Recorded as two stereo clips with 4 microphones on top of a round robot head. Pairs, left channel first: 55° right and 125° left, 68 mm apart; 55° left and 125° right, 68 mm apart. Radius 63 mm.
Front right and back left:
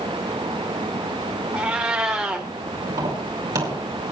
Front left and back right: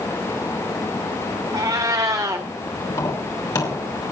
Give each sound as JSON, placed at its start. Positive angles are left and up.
{"t": 1.5, "sound": "a cat meowing", "azimuth_deg": -160, "distance_m": 1.2}
{"t": 2.9, "sound": "tapping", "azimuth_deg": 90, "distance_m": 4.5}